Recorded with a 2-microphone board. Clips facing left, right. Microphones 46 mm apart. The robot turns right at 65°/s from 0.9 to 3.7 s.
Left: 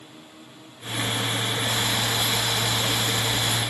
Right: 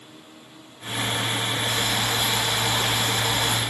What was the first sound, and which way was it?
Boiling, 150° left.